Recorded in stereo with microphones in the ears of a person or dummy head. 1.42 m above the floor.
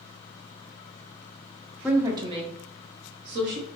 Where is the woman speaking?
5° right (ahead or behind), 0.6 m; by 3.6 s 60° right (ahead or behind), 1.3 m.